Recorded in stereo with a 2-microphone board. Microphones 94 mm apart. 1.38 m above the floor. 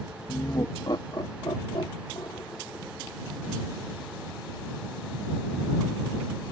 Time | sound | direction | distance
0.3 | laughter | 40° left (ahead or behind) | ?